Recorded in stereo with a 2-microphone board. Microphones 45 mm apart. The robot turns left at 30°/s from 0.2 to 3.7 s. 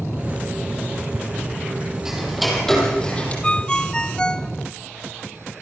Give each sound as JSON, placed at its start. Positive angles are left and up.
{"t": 2.0, "sound": "ticking", "azimuth_deg": -170, "distance_m": 7.0}
{"t": 3.4, "sound": "a ringtone", "side_deg": 25, "distance_m": 0.6}